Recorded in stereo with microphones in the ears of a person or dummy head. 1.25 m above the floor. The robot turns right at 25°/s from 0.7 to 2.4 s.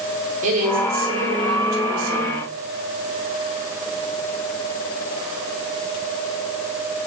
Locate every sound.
0.4 s a woman speaking: 135° right, 4 m; by 2.4 s 95° right, 4 m